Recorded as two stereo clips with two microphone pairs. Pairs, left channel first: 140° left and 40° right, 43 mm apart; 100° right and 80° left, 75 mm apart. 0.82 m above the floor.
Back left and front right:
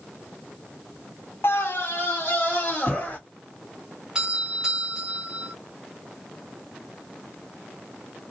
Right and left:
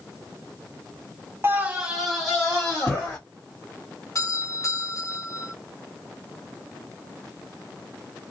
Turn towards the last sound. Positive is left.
turn(degrees=-105)